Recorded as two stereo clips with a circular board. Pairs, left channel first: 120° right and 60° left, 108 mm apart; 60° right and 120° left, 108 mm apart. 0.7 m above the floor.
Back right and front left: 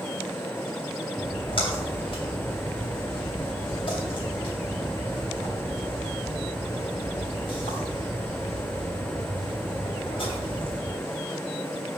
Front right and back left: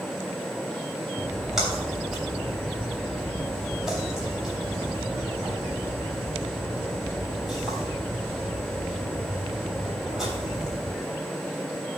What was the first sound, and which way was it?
A splash, 155° right.